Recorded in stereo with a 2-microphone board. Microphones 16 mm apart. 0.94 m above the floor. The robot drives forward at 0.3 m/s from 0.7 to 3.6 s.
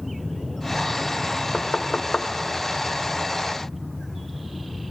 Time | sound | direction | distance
1.5 | knocking | 70° left (ahead or behind) | 0.5 m